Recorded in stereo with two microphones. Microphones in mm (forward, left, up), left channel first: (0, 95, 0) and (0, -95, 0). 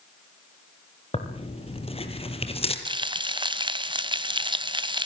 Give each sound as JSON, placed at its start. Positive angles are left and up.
{"t": 1.1, "sound": "tearing paper", "side_deg": 30, "distance_m": 3.0}
{"t": 2.9, "sound": "frying", "side_deg": -25, "distance_m": 1.2}